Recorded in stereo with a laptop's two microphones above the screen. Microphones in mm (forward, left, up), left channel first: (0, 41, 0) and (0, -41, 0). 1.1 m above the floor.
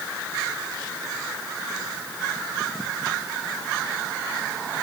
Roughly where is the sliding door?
No sliding door in this recording.